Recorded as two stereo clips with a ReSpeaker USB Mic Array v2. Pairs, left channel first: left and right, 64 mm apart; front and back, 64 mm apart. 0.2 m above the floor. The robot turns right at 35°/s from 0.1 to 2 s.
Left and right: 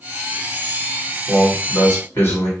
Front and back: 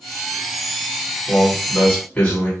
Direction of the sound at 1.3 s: 45° left.